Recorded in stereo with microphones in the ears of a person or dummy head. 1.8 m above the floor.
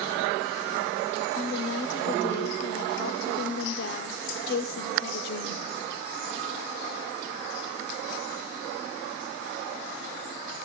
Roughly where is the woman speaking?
Left.